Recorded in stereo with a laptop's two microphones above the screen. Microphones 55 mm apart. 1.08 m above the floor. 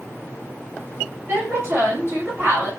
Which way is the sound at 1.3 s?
45° right (ahead or behind).